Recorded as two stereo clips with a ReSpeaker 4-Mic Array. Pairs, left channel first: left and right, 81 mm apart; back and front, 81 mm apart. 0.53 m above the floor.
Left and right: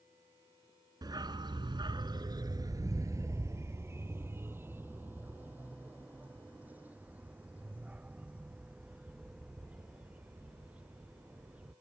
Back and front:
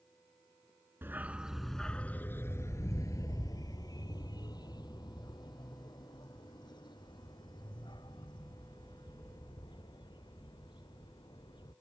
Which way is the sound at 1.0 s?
60° right.